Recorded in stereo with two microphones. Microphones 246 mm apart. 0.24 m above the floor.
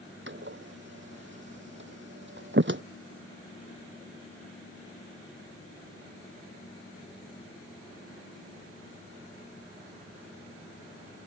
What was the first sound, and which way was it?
A door slam, 50° right (ahead or behind).